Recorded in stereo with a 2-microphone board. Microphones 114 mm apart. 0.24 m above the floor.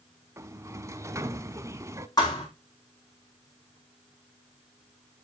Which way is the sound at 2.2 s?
35° left (ahead or behind).